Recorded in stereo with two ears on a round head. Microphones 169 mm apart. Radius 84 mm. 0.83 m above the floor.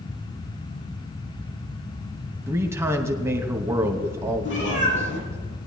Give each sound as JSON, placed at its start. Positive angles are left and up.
{"t": 2.5, "sound": "a man speaking", "side_deg": -15, "distance_m": 1.0}
{"t": 4.5, "sound": "a cat meowing", "side_deg": 70, "distance_m": 4.5}